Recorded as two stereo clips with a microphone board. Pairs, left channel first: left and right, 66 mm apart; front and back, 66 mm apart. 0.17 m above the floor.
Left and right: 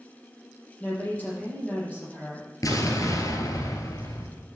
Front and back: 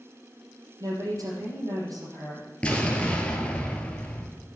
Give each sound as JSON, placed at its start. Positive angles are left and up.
{"t": 0.8, "sound": "a woman speaking", "azimuth_deg": 155, "distance_m": 5.5}
{"t": 2.6, "sound": "an explosion", "azimuth_deg": 70, "distance_m": 2.0}